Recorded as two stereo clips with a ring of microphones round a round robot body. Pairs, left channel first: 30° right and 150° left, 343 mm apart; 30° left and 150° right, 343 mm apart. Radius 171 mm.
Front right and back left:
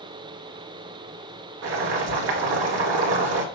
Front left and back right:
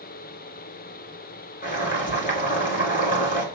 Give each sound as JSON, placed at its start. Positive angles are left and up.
{"t": 1.6, "sound": "boiling", "azimuth_deg": 95, "distance_m": 1.4}